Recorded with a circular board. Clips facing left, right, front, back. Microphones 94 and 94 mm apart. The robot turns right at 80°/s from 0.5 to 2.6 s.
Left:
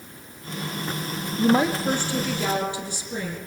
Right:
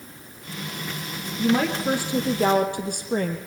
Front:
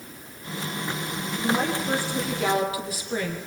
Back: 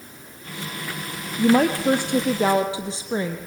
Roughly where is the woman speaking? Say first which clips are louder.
Left 2 dB, back 8 dB; behind left.